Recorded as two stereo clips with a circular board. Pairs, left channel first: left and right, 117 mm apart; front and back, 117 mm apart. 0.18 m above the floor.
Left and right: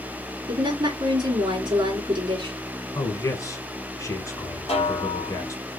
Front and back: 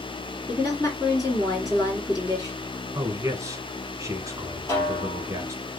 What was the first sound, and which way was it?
A woman speaking, 50° right.